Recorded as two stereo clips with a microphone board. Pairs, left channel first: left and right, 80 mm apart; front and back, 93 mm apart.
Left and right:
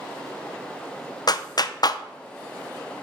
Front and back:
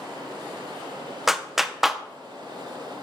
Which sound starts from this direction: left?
A clap, at 1.3 s.